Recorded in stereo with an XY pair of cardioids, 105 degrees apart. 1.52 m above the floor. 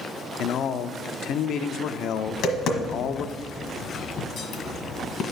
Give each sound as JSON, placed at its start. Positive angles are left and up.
{"t": 0.4, "sound": "a man speaking", "azimuth_deg": 70, "distance_m": 0.6}
{"t": 2.3, "sound": "tapping", "azimuth_deg": 70, "distance_m": 1.3}